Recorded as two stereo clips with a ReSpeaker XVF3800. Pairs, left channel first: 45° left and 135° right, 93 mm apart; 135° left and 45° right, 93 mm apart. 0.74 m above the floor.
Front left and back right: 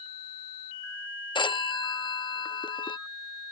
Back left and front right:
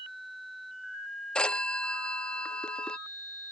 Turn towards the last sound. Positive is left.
turn(degrees=60)